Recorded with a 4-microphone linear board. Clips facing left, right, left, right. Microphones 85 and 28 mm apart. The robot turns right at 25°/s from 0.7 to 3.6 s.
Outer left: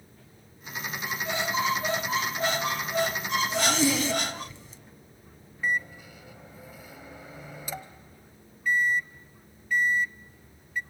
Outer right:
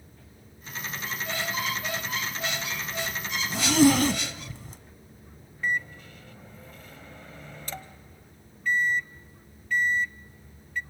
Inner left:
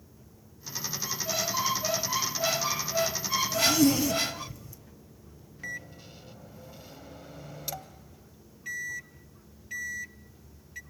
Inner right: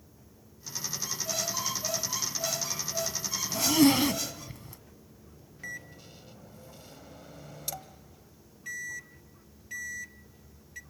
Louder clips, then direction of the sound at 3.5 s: Outer right 8 dB, inner right 1 dB; 55° right (ahead or behind).